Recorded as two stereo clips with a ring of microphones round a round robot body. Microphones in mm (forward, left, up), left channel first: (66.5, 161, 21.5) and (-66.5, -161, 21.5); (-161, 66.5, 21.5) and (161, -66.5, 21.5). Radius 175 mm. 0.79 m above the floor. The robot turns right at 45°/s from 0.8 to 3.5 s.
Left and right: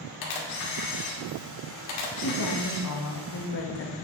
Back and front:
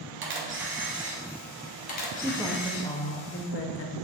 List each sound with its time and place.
0.2 s a camera shutter: 35° left, 2 m; by 2.9 s 130° left, 2 m
2.2 s a woman speaking: 50° left, 1.1 m; by 4.0 s 110° left, 1.1 m